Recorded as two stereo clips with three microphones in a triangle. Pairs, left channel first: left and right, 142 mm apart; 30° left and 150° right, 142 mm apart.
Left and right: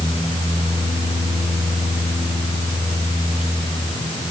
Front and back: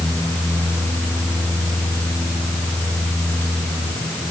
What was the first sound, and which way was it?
Only background noise.